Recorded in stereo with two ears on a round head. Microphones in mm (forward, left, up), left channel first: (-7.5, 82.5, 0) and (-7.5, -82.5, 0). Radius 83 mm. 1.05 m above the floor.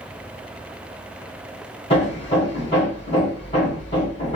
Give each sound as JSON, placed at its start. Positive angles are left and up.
{"t": 1.9, "sound": "hammering", "side_deg": 35, "distance_m": 2.0}